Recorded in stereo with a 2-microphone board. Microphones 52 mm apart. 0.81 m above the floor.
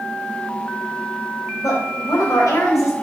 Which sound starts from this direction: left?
A woman speaking, at 1.6 s.